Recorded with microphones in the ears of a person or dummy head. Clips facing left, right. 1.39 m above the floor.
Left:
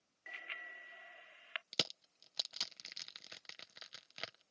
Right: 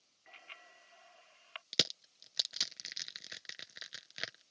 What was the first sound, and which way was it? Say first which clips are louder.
A bicycle bell: left 2 dB; 25° left (ahead or behind).